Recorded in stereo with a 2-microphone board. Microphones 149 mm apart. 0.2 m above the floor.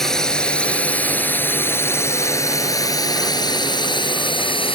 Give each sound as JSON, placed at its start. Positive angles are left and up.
{"t": 0.0, "sound": "a drone", "side_deg": 5}